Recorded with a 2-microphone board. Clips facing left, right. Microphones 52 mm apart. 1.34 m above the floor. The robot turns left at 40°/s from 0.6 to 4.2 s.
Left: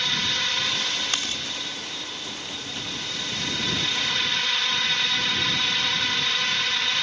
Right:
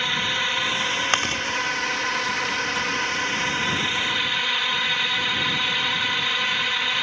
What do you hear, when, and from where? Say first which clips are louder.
0.0 s a drone: right 3 dB; 20° right; by 7.0 s 165° right
1.1 s chewing: right 7 dB; 45° right (ahead or behind); by 1.4 s 55° right (ahead or behind)